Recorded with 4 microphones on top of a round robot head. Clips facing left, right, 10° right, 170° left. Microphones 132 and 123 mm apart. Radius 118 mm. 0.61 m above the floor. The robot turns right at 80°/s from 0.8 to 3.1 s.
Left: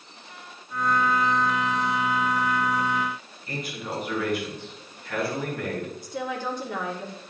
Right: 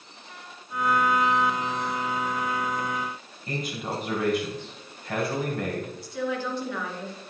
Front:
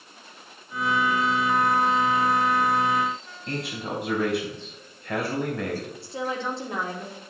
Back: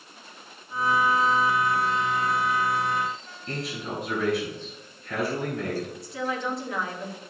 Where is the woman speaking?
50° left, 2 m.